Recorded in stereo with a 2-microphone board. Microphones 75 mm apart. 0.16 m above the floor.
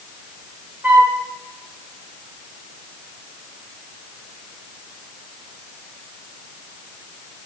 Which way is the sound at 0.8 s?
25° right (ahead or behind).